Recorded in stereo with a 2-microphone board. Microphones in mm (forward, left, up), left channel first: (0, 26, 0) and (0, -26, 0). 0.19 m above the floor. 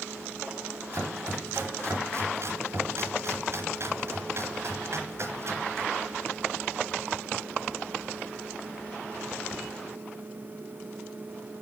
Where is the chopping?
55° right (ahead or behind), 2 m.